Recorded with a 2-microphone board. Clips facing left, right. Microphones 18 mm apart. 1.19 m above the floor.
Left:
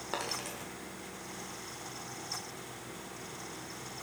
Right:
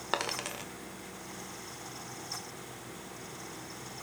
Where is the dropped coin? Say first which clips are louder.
Right 4 dB; 40° right (ahead or behind), 1.4 m.